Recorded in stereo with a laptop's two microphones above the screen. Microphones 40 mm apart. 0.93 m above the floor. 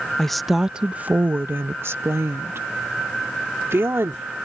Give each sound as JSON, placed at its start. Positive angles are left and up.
{"t": 0.2, "sound": "a woman speaking", "side_deg": 10}